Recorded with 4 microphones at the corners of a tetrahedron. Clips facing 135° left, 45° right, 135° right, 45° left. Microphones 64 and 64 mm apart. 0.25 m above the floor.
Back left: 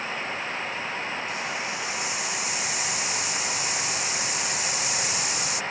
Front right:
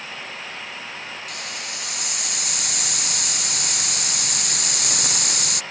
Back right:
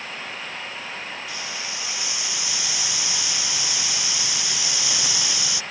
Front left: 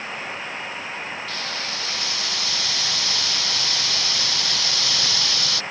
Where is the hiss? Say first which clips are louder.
Back left 4 dB, front left 3 dB; 60° right.